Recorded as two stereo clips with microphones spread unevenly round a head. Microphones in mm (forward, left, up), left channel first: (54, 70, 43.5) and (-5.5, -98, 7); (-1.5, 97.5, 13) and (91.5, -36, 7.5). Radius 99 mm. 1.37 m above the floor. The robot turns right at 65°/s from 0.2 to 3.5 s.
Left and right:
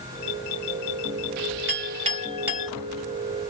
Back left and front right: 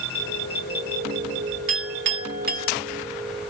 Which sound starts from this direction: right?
A clink, at 1.7 s.